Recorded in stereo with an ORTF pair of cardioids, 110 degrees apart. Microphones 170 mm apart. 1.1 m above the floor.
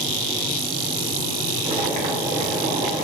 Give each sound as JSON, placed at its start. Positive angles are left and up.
{"t": 1.6, "sound": "boiling", "azimuth_deg": -45, "distance_m": 0.8}